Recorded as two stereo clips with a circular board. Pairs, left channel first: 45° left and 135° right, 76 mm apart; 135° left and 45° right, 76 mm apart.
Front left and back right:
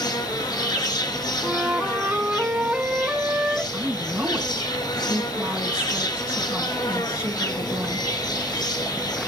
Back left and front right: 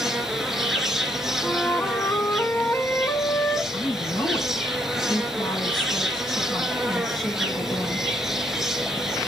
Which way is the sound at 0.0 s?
40° left.